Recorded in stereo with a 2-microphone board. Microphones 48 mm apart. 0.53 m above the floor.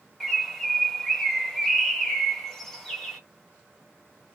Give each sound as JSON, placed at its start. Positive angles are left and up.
{"t": 0.2, "sound": "a bird", "side_deg": 10, "distance_m": 0.7}